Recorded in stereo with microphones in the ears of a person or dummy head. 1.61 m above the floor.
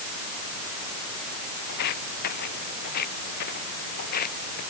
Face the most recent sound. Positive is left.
turn(degrees=55)  # may be behind; listen again after turning